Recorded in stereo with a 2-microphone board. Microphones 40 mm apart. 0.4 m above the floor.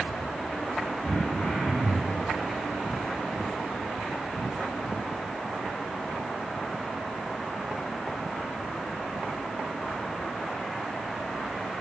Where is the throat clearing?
40° left (ahead or behind), 4 m.